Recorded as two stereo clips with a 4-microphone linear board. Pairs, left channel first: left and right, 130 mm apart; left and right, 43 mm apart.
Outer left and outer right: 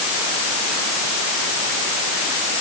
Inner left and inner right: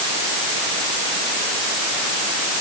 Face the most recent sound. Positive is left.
No sound to turn to.